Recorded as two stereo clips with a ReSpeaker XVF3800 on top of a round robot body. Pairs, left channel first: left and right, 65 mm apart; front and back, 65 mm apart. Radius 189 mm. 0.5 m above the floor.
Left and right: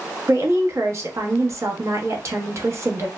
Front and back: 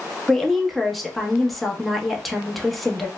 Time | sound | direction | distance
0.3 | a woman speaking | 90° right | 1.0 m